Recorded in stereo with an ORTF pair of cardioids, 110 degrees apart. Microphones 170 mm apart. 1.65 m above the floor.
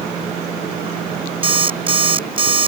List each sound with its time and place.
1.4 s an alarm clock: 30° right